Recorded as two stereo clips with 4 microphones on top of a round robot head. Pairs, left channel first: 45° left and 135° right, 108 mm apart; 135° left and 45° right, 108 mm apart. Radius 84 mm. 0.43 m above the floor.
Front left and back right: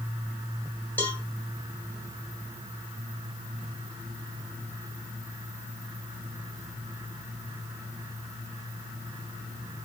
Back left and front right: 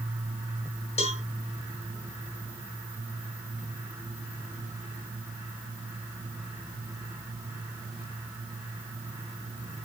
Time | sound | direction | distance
1.0 | a cowbell | 115° left | 2.5 m